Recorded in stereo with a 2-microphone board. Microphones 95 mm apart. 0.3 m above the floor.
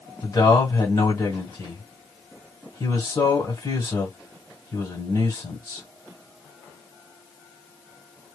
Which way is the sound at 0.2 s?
35° left (ahead or behind).